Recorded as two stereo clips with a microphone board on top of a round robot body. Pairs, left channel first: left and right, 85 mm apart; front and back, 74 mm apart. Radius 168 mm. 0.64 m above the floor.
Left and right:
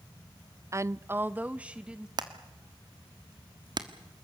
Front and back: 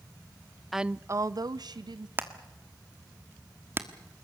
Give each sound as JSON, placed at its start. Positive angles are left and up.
{"t": 0.7, "sound": "a woman speaking", "azimuth_deg": -90, "distance_m": 0.5}
{"t": 2.2, "sound": "hammering", "azimuth_deg": -120, "distance_m": 1.5}